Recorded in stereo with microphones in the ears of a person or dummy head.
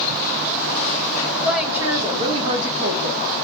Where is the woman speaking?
5° right (ahead or behind), 1.6 m; by 3.2 s 55° right (ahead or behind), 1.5 m.